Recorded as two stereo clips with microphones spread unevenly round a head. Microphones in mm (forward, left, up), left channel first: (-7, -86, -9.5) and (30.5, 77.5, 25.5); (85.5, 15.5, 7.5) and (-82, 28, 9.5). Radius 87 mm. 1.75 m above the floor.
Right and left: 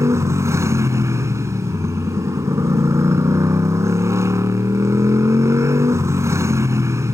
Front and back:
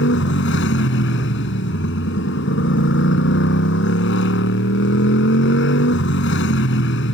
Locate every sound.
0.0 s a motorcycle: 5° left